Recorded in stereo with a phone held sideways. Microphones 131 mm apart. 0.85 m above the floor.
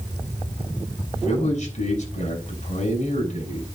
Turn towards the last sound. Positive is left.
turn(degrees=70)  # may be behind; listen again after turning